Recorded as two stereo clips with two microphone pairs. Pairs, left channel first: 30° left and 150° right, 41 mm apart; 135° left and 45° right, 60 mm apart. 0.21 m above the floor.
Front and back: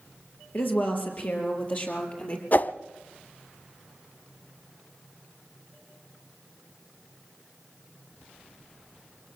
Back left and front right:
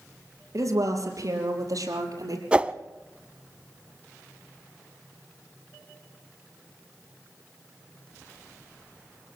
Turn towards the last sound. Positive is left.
turn(degrees=10)